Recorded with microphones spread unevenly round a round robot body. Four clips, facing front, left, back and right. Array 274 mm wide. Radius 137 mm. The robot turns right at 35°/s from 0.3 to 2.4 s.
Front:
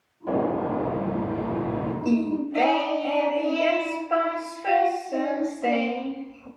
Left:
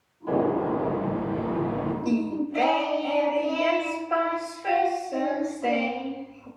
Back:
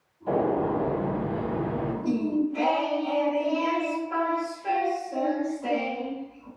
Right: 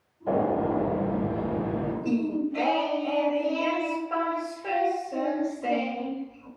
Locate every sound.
0.3 s a gunshot: 95° right, 1.8 m; by 1.9 s 40° right, 1.8 m
2.0 s singing: straight ahead, 0.9 m; by 6.5 s 15° left, 0.9 m